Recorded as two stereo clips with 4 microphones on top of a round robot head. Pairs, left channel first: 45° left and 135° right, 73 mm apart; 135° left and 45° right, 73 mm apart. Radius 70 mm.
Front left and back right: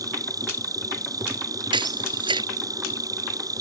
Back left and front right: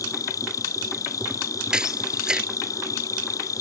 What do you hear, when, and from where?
0.0 s an insect: 175° right
1.7 s a camera shutter: 125° right